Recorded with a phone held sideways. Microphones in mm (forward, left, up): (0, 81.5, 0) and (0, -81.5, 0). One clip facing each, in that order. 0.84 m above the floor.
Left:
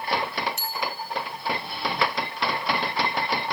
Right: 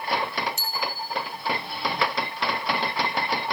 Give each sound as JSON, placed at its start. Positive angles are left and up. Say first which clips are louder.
{"t": 0.6, "sound": "a bicycle bell", "louder": "left 1 dB", "side_deg": 60, "distance_m": 4.5}